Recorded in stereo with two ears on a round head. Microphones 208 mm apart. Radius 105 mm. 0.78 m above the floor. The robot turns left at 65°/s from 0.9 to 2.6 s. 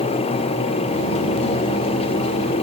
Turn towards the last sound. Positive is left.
No sound to turn to.